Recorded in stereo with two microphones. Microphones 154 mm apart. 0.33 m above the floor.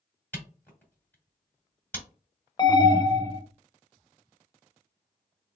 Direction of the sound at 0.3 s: 10° left (ahead or behind).